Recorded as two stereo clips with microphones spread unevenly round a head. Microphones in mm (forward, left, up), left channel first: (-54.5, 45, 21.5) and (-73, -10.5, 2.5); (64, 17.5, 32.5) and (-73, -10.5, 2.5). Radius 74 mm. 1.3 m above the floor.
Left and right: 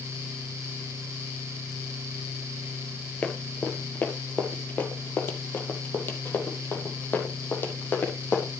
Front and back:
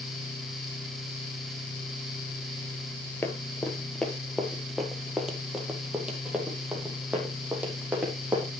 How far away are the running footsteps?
About 1.6 m.